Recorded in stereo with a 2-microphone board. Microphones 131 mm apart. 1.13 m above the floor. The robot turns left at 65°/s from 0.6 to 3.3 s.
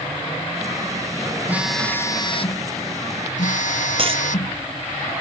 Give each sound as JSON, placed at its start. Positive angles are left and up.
{"t": 1.5, "sound": "a phone buzzing", "azimuth_deg": -165}
{"t": 4.0, "sound": "a dropped coin", "side_deg": -45}